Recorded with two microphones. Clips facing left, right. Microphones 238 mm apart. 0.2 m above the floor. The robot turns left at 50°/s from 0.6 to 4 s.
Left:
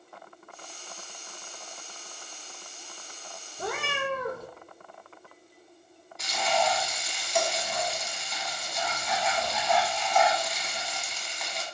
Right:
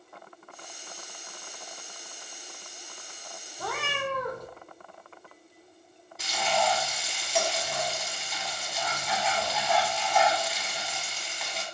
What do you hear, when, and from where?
3.6 s a cat meowing: 30° left (ahead or behind), 0.8 m; by 4.5 s 10° left (ahead or behind), 0.8 m
6.2 s frying: 5° right (ahead or behind), 1.1 m